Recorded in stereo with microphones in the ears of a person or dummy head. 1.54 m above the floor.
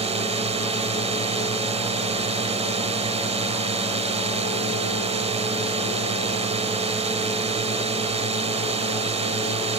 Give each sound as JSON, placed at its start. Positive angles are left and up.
{"t": 0.0, "sound": "a drone", "side_deg": -30}